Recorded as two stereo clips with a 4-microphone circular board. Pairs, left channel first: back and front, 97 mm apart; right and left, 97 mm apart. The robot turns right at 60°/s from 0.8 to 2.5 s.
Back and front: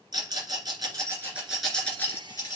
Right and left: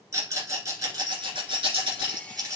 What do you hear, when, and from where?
0.1 s a rattle: 40° left, 2 m; by 2.6 s 140° left, 2 m